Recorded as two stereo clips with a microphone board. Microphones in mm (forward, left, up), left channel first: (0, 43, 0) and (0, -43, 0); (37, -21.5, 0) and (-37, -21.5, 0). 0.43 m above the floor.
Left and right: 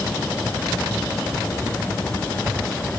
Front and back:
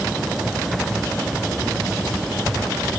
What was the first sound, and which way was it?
Only background noise.